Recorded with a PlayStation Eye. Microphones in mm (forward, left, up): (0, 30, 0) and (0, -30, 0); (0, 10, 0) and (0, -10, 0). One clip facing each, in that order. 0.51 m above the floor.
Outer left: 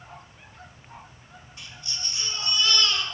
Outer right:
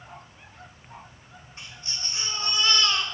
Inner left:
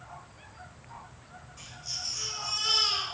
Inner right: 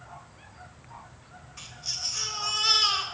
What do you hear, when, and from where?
1.6 s a baby crying: 30° right (ahead or behind), 1.8 m